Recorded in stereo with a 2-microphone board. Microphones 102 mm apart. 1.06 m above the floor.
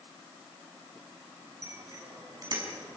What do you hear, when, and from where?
1.6 s a bicycle bell: 35° right (ahead or behind), 7 m; by 3.0 s 50° right (ahead or behind), 5.5 m